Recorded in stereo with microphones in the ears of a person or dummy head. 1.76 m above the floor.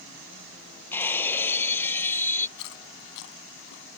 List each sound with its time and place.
0.9 s breaking glass: 15° left (ahead or behind)
2.6 s chewing: 60° left (ahead or behind)